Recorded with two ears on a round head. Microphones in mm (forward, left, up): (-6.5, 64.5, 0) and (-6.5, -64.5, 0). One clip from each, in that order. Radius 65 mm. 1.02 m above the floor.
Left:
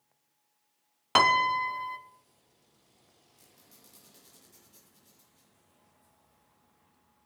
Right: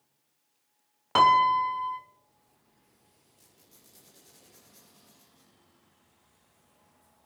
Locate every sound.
1.1 s a piano: 50° left (ahead or behind), 0.8 m
3.4 s a squeak: 20° left (ahead or behind), 6.5 m